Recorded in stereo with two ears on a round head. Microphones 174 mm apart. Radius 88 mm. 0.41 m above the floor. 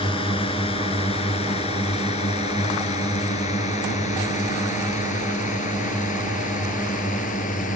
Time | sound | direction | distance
0.0 | a drone | 25° left (ahead or behind) | ?